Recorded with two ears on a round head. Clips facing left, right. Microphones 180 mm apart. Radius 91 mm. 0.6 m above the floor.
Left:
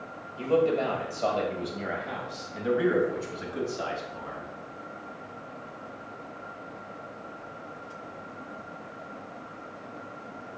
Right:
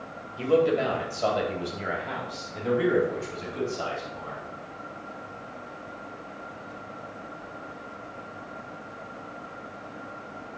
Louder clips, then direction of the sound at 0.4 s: Right 2 dB; 15° right (ahead or behind).